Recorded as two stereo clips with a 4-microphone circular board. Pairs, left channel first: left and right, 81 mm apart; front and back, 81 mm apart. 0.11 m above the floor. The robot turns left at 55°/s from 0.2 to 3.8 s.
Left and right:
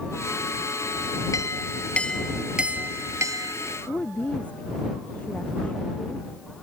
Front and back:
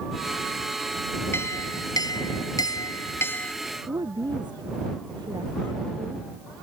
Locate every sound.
1.3 s a clink: 55° left; by 3.5 s 70° right
3.9 s a woman speaking: 160° left